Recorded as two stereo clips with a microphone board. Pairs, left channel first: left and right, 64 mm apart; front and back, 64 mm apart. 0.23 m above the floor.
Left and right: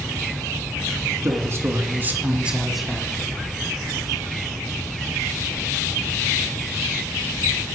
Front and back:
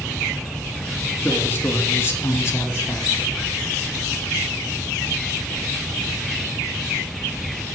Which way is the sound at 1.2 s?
60° right.